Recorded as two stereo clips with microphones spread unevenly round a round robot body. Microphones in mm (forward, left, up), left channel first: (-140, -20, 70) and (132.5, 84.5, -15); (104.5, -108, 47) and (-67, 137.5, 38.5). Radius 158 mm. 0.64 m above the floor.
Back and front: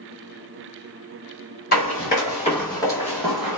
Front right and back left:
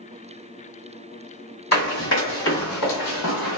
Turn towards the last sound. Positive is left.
turn(degrees=-75)